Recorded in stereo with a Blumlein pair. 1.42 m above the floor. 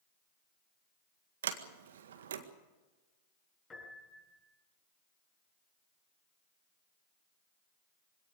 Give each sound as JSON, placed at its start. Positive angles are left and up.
{"t": 1.4, "sound": "a sliding door", "azimuth_deg": -60, "distance_m": 1.7}
{"t": 3.7, "sound": "a piano", "azimuth_deg": 20, "distance_m": 7.0}